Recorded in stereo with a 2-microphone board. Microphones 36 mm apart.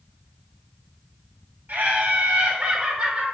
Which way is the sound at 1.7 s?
60° right (ahead or behind).